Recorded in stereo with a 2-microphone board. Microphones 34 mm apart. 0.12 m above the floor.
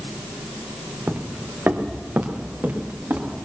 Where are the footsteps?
50° right (ahead or behind), 1.3 m; by 3.4 s 70° right (ahead or behind), 4 m.